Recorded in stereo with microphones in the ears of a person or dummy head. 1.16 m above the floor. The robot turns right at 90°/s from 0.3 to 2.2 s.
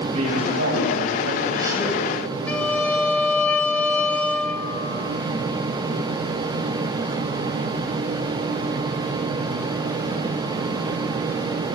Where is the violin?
15° left (ahead or behind), 1.1 m.